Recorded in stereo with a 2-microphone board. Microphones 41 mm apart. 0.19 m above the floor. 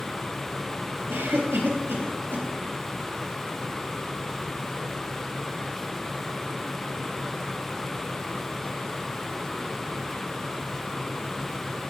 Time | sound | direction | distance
1.1 | a cough | 70° right (ahead or behind) | 3.5 m